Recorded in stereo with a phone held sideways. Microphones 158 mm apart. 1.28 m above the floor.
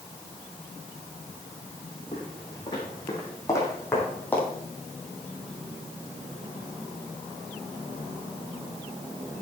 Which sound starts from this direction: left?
Footsteps, at 2.1 s.